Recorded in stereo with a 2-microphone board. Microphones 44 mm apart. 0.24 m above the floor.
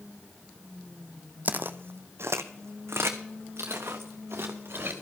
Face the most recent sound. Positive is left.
turn(degrees=-60)  # may be behind; listen again after turning